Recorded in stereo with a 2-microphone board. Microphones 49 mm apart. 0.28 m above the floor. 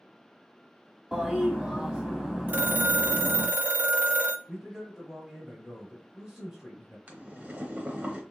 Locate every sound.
1.1 s a toilet flushing: 15° right (ahead or behind), 1.4 m
2.5 s a phone ringing: 40° right (ahead or behind), 0.8 m
4.5 s a man speaking: 15° right (ahead or behind), 1.5 m
7.1 s boiling: 30° right (ahead or behind), 0.9 m